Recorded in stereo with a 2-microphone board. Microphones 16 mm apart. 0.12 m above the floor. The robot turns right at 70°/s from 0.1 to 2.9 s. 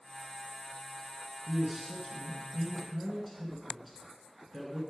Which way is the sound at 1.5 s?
25° right (ahead or behind).